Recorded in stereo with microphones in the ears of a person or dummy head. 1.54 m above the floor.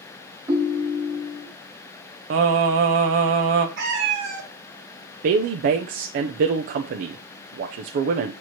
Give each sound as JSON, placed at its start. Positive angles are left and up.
{"t": 0.5, "sound": "a ringtone", "side_deg": -15, "distance_m": 1.1}
{"t": 2.3, "sound": "singing", "side_deg": -50, "distance_m": 0.8}
{"t": 3.8, "sound": "a cat meowing", "side_deg": -55, "distance_m": 1.9}
{"t": 5.2, "sound": "a woman speaking", "side_deg": -50, "distance_m": 0.6}